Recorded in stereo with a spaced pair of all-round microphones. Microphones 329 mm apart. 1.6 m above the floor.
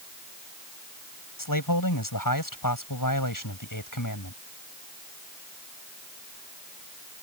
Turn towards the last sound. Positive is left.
turn(degrees=70)  # may be behind; listen again after turning